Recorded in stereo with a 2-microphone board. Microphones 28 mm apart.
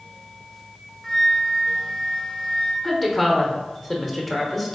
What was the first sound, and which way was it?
A flute, 25° left (ahead or behind).